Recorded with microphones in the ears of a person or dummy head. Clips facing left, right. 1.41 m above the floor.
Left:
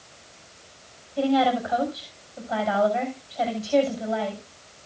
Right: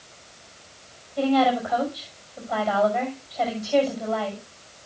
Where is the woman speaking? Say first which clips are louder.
Right 1 dB; 5° left (ahead or behind), 6.5 m.